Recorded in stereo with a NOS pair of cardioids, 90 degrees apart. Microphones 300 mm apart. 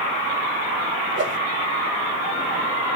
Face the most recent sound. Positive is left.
turn(degrees=-40)